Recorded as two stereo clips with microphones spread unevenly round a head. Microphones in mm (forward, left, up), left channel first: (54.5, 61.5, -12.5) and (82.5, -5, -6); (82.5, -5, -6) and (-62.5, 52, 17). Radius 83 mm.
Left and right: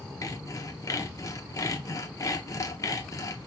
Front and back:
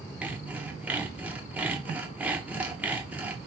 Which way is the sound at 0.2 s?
75° left.